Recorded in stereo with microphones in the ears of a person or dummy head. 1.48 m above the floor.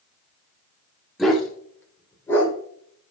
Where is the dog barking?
5° left (ahead or behind), 1.8 m; by 2.5 s 20° left (ahead or behind), 3 m.